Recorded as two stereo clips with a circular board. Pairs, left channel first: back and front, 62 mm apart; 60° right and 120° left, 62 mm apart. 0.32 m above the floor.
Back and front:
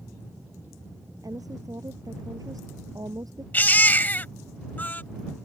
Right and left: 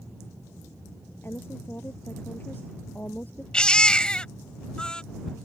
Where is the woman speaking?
10° right; by 3.4 s straight ahead.